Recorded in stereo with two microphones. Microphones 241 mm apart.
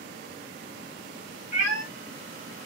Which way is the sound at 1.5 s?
45° right (ahead or behind).